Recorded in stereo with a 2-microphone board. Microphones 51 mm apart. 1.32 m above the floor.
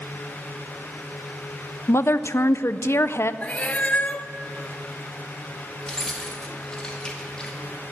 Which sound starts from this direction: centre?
Keys jangling, at 5.8 s.